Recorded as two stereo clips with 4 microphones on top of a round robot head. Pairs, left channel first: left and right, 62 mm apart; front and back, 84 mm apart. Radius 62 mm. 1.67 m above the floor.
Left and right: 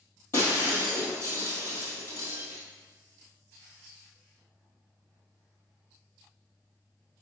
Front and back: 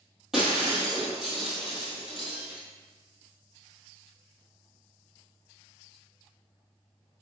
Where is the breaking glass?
100° left, 2 m.